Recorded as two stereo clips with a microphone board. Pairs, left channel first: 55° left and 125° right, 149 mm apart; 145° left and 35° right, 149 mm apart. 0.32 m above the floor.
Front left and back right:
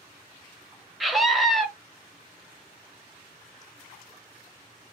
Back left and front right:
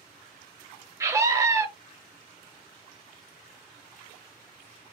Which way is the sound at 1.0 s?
35° right.